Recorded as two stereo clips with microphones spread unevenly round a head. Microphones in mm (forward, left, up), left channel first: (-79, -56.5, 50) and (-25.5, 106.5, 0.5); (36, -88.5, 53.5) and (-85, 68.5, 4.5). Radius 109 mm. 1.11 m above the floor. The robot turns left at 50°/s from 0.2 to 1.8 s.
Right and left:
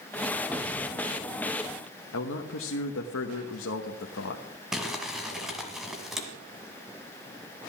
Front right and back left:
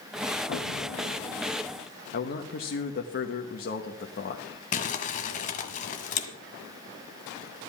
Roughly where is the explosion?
Ahead.